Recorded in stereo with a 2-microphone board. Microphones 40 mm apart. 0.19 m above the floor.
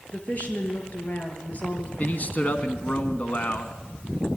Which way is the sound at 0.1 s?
40° left (ahead or behind).